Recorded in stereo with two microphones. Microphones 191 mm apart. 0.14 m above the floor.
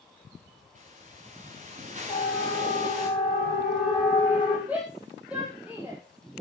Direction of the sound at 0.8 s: 40° right (ahead or behind).